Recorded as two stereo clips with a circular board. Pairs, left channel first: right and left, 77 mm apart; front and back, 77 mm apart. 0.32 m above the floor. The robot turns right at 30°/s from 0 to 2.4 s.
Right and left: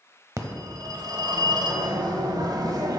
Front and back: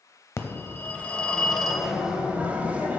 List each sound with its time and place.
0.4 s a phone ringing: 50° left, 0.7 m; by 3.0 s 110° left, 0.7 m